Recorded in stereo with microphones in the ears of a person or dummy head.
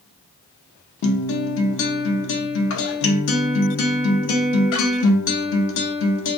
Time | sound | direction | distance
1.0 | a guitar | 65° left (ahead or behind) | 0.6 m